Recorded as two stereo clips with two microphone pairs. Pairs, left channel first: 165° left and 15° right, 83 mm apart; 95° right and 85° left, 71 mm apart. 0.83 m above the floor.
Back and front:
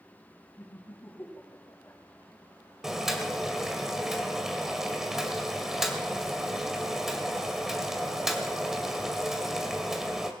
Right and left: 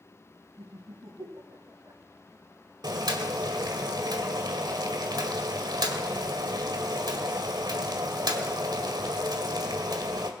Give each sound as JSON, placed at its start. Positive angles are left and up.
{"t": 0.6, "sound": "laughter", "azimuth_deg": 100, "distance_m": 6.5}
{"t": 2.8, "sound": "boiling", "azimuth_deg": 70, "distance_m": 2.0}